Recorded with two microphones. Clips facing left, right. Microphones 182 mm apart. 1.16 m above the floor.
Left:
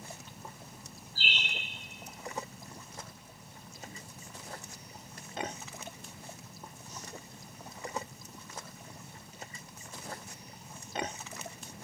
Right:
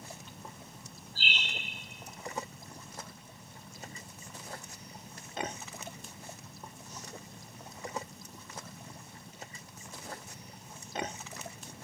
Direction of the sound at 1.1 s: 70° right (ahead or behind).